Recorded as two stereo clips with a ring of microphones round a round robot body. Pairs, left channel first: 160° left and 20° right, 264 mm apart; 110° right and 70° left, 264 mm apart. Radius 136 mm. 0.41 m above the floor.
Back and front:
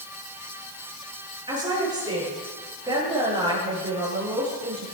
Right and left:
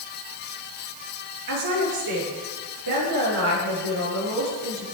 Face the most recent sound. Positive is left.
turn(degrees=50)